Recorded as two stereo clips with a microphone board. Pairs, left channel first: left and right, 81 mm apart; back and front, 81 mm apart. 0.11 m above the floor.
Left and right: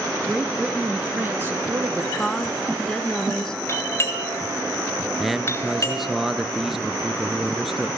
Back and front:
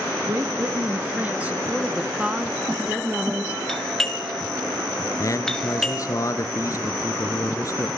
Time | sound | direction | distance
0.2 | a woman speaking | 10° right | 2.0 m
2.2 | a woman speaking | 35° left | 1.2 m
3.7 | a doorbell | 100° left | 2 m
5.2 | a man speaking | 175° right | 1.4 m